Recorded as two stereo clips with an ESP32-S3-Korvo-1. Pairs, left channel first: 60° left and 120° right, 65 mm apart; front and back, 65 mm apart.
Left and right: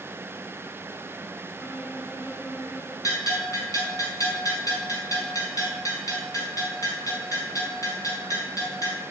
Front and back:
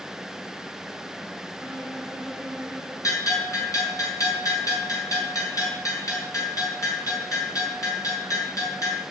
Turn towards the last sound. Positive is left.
turn(degrees=30)